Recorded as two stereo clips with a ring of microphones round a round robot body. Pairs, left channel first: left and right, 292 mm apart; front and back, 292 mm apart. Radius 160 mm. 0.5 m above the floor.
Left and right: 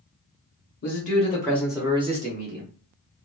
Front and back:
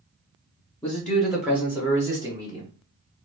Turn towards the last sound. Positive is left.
turn(degrees=-110)